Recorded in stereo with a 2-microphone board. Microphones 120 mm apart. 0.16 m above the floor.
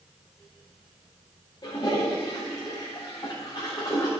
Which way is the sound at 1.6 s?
35° left (ahead or behind).